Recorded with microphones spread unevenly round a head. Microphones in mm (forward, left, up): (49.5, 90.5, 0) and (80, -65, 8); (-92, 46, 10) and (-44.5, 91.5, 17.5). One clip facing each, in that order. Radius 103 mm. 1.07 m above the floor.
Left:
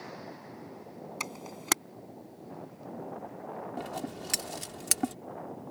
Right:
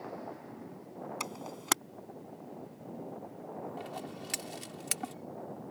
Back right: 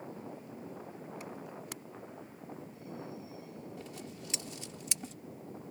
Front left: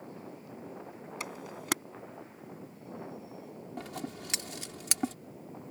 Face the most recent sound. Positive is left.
turn(degrees=65)